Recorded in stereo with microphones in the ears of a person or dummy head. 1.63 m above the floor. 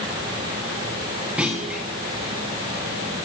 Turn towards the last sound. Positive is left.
turn(degrees=-10)  # may be behind; listen again after turning